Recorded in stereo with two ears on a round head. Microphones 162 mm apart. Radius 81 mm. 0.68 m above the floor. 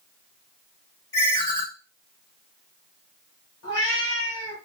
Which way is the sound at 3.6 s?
80° left.